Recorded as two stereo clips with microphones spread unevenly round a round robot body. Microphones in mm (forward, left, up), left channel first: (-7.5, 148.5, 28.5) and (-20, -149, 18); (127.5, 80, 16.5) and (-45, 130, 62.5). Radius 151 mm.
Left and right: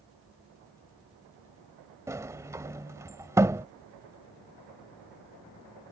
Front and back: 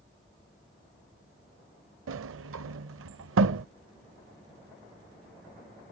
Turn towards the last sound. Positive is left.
turn(degrees=-175)